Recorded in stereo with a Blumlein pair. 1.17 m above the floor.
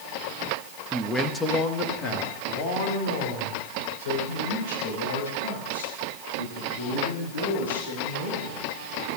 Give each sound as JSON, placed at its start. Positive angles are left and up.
{"t": 0.9, "sound": "a man speaking", "azimuth_deg": -10, "distance_m": 1.3}